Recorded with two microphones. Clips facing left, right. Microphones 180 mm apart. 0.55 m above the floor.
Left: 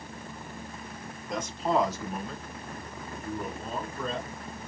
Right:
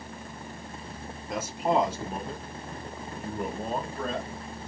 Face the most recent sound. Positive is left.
turn(degrees=-70)  # may be behind; listen again after turning